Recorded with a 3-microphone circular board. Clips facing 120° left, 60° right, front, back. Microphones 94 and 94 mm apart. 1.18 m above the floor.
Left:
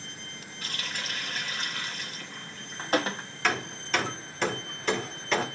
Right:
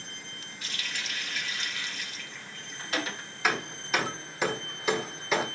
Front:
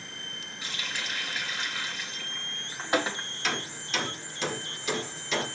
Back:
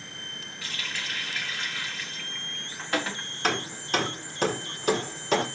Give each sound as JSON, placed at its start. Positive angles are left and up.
{"t": 0.6, "sound": "a running tap", "azimuth_deg": 70, "distance_m": 1.5}
{"t": 3.4, "sound": "hammering", "azimuth_deg": -140, "distance_m": 1.6}